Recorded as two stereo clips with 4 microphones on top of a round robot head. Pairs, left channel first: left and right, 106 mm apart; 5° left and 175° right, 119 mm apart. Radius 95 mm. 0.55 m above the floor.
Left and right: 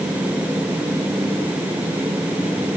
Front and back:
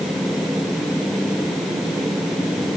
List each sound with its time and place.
Only background noise.